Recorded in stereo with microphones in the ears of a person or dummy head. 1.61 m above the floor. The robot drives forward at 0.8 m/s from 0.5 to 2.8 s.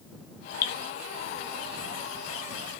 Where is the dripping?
30° left (ahead or behind), 1.5 m; by 0.7 s 35° left (ahead or behind), 1.4 m.